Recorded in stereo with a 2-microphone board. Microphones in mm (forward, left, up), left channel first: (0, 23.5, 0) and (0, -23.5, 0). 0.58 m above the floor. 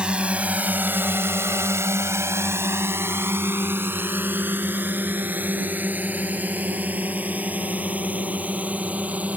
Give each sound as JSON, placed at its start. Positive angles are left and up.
{"t": 0.0, "sound": "a drone", "side_deg": -20}